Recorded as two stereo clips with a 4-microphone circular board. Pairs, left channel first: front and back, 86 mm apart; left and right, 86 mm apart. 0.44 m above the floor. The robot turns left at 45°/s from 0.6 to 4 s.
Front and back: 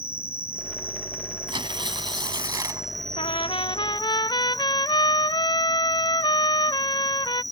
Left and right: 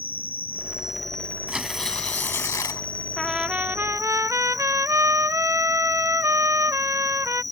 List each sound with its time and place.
0.0 s an insect: 160° right; by 7.5 s 45° left
1.5 s tearing paper: 170° right; by 2.9 s 130° left
3.2 s a trumpet: 5° left; by 7.4 s 35° right